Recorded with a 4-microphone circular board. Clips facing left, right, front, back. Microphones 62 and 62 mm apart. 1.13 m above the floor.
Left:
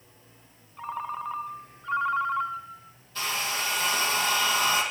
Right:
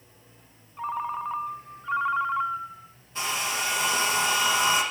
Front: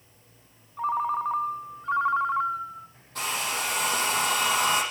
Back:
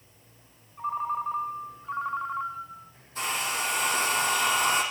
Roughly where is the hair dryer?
Ahead.